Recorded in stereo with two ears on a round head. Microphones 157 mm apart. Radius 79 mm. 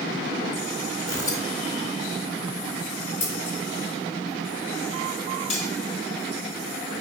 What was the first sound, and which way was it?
Tearing paper, 20° left (ahead or behind).